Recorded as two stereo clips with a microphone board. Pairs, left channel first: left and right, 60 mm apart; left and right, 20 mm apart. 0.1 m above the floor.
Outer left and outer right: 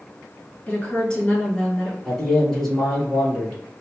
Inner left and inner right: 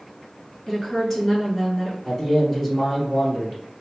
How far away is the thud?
No thud in this recording.